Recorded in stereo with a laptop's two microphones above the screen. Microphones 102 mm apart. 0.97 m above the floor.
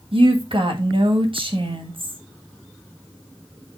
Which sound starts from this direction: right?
A woman speaking, at 0.1 s.